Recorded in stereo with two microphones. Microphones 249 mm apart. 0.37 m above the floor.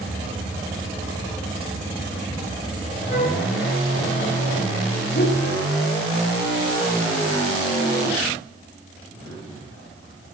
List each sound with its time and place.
3.1 s a flute: 40° left (ahead or behind), 3.5 m
5.2 s a whoosh: 45° left (ahead or behind), 2.5 m